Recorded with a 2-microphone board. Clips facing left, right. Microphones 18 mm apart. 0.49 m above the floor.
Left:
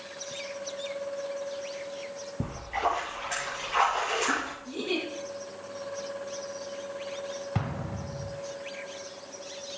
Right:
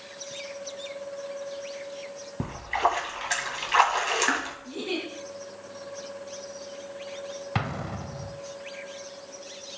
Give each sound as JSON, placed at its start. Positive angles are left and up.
{"t": 2.4, "sound": "a splash", "side_deg": -55, "distance_m": 2.0}
{"t": 4.7, "sound": "a giggle", "side_deg": -5, "distance_m": 3.5}
{"t": 7.5, "sound": "an explosion", "side_deg": -45, "distance_m": 0.6}